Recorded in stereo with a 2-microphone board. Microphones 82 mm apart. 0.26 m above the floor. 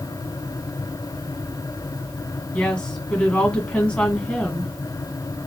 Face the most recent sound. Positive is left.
turn(degrees=15)  # may be behind; listen again after turning